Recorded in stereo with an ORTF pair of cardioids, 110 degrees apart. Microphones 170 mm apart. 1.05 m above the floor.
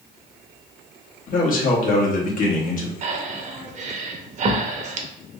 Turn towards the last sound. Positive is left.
turn(degrees=-45)